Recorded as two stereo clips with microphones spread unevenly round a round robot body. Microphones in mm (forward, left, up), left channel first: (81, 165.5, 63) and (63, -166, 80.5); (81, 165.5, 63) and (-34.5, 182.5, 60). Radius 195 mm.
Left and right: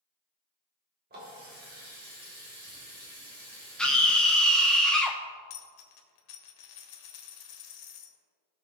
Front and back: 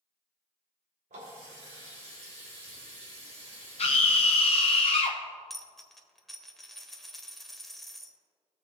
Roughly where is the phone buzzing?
I don't hear a phone buzzing.